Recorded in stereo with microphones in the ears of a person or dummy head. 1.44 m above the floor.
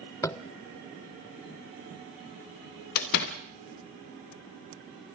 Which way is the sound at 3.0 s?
50° left (ahead or behind).